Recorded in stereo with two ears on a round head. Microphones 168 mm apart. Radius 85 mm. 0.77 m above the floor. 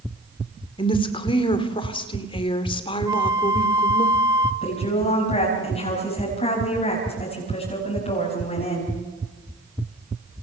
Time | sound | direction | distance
0.8 | a woman speaking | 25° left (ahead or behind) | 2.5 m
3.1 | a flute | 15° right (ahead or behind) | 1.5 m
4.6 | a woman speaking | 35° left (ahead or behind) | 6 m